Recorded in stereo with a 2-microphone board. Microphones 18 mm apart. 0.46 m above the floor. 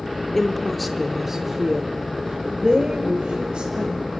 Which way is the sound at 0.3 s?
15° left (ahead or behind).